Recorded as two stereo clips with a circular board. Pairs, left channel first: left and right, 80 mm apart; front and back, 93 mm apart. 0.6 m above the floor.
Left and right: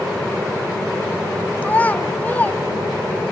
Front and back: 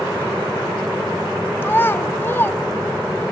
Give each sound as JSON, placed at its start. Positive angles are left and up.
{"t": 1.6, "sound": "a child speaking", "azimuth_deg": 40, "distance_m": 0.5}